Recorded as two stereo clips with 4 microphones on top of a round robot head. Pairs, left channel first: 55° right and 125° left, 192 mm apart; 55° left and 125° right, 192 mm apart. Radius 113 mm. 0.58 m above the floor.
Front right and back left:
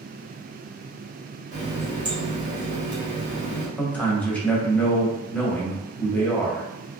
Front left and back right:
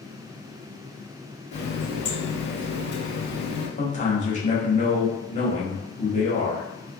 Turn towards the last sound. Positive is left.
turn(degrees=25)